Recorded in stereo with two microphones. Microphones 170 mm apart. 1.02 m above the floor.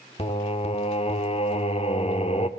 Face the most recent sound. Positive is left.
turn(degrees=35)  # may be behind; listen again after turning